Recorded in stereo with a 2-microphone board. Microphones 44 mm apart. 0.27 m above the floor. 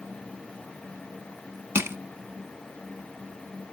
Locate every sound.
1.8 s crushing: 70° right (ahead or behind), 1.0 m